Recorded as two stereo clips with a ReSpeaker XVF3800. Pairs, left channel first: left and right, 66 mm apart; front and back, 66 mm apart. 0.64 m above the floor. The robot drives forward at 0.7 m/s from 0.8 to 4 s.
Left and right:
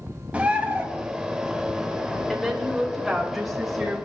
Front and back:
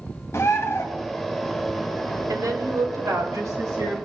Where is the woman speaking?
Straight behind, 2.5 m.